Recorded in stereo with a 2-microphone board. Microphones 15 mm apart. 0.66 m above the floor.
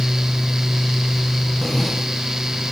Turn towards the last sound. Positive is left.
turn(degrees=20)  # may be behind; listen again after turning